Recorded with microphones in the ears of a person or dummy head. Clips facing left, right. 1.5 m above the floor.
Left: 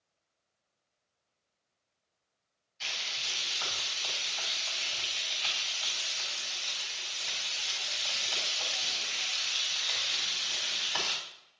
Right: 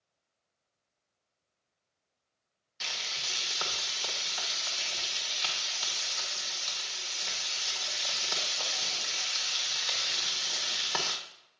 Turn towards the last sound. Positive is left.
turn(degrees=-60)  # may be behind; listen again after turning